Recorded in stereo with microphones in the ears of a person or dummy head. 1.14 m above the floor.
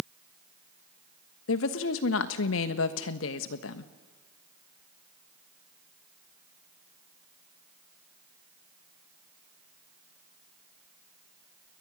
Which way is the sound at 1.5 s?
65° left (ahead or behind).